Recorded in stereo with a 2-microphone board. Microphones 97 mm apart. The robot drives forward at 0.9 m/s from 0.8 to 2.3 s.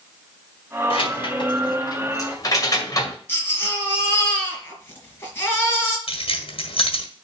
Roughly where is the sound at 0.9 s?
Left.